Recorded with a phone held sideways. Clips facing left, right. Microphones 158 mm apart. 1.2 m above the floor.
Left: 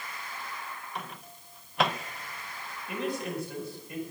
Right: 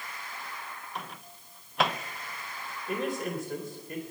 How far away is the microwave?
About 0.6 m.